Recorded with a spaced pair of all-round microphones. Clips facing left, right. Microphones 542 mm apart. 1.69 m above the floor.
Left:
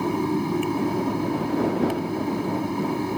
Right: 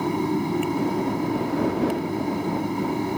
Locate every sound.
0.0 s a fan: centre (ahead or behind)